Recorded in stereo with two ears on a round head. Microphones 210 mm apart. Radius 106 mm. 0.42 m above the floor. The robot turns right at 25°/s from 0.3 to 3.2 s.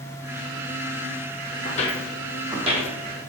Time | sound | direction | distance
1.6 | footsteps | 35° left (ahead or behind) | 0.6 m